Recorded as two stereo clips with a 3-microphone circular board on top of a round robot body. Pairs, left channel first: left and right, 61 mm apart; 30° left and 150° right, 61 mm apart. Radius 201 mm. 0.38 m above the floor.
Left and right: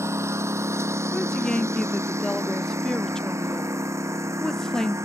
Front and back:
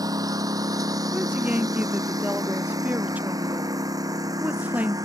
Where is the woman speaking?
165° left.